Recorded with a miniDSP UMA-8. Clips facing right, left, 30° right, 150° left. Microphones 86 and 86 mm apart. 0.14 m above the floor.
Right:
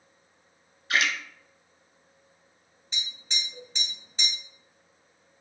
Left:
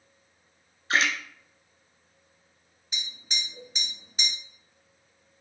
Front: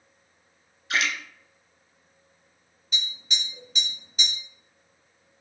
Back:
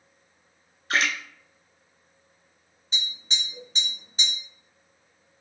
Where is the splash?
135° left, 0.6 m.